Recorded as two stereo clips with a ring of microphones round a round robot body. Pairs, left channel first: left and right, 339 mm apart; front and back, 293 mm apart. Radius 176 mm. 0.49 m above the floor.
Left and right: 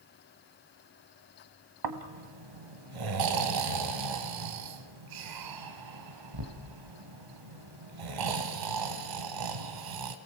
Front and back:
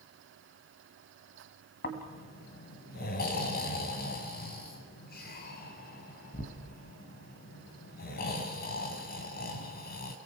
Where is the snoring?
65° right, 1.7 m.